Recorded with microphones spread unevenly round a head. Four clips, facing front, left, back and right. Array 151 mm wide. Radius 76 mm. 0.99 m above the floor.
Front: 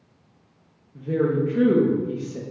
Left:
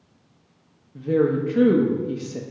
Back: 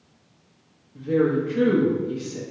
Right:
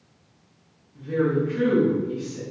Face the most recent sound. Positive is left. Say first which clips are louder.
# left 3 dB, back 1 dB
turn(degrees=75)